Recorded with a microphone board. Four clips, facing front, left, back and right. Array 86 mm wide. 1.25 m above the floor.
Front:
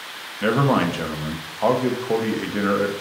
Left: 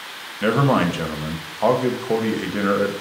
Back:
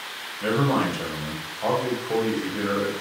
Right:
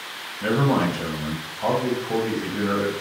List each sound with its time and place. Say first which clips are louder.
0.4 s a man speaking: left 3 dB, front 3 dB; 50° left, 0.6 m